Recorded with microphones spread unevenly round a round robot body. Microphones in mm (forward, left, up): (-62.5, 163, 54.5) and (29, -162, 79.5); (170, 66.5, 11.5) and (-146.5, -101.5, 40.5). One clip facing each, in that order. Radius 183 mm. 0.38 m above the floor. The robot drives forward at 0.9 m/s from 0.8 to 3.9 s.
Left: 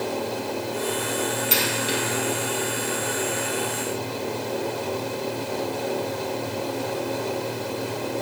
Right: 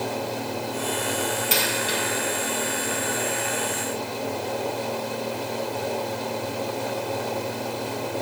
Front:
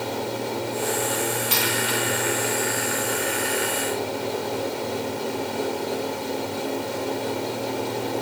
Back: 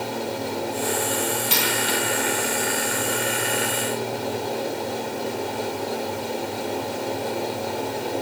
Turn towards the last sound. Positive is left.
turn(degrees=-170)